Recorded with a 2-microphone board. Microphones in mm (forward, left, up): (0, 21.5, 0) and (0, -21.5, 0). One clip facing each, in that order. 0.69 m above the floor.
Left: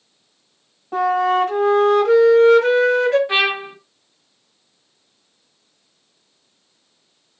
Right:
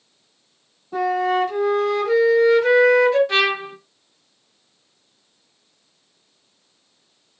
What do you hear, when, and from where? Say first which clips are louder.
0.9 s a flute: left 3 dB; 55° left (ahead or behind), 1.4 m
3.3 s a trumpet: left 1 dB; 20° left (ahead or behind), 0.6 m